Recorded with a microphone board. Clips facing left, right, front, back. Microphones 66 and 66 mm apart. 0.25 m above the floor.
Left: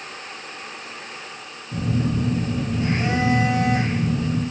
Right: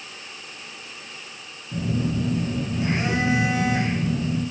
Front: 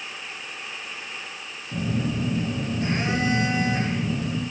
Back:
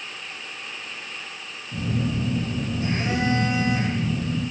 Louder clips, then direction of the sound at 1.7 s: Left 2 dB, even; 15° right.